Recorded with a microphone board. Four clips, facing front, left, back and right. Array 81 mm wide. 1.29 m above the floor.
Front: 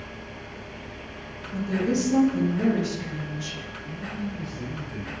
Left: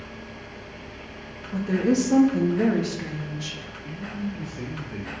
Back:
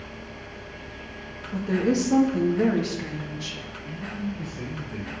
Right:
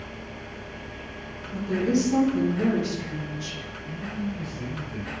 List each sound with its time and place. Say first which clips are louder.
1.5 s a woman speaking: left 2 dB, back 2 dB; 130° left, 2 m
3.8 s a man speaking: even, back 1 dB; 100° left, 3.5 m